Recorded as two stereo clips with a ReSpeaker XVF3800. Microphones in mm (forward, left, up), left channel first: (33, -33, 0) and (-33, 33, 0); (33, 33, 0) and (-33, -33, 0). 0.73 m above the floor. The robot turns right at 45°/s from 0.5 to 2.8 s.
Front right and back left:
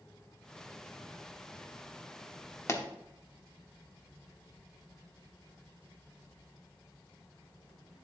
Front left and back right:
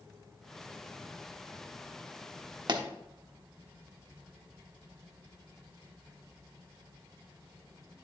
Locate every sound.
2.7 s a pop: 100° right, 0.9 m; by 2.8 s 95° right, 0.9 m